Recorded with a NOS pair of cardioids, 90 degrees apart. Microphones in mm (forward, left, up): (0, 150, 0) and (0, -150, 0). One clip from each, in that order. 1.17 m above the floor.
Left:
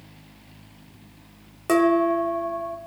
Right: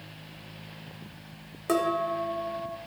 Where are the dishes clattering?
25° left, 1.9 m.